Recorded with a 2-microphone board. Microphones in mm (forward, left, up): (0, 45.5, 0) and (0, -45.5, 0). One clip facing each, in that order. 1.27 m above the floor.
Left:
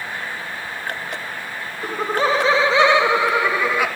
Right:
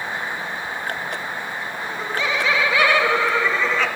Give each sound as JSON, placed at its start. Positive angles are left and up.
{"t": 1.8, "sound": "laughter", "side_deg": 50, "distance_m": 0.6}